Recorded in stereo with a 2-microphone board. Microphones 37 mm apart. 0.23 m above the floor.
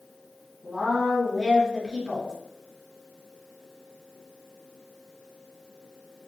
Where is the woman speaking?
25° right (ahead or behind), 1.5 m.